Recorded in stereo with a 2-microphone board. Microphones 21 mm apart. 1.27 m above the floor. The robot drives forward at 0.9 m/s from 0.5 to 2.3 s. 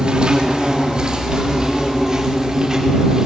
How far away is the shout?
I don't hear a shout.